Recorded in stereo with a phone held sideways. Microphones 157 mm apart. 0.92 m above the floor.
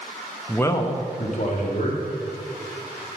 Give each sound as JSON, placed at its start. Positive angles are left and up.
{"t": 0.5, "sound": "a man speaking", "side_deg": 0, "distance_m": 0.6}